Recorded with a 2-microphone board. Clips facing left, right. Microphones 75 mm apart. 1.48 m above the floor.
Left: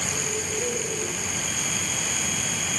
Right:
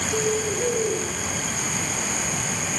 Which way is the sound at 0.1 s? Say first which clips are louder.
Right 7 dB; 40° right (ahead or behind).